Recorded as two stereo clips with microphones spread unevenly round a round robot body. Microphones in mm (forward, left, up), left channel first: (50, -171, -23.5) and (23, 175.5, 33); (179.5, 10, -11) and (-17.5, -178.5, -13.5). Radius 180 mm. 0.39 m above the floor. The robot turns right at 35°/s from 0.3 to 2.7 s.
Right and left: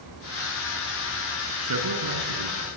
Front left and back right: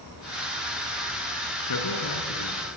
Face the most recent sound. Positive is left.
turn(degrees=90)